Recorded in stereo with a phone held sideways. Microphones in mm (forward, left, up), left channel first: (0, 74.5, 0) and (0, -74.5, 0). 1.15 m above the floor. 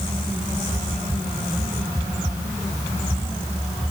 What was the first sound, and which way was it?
Only background noise.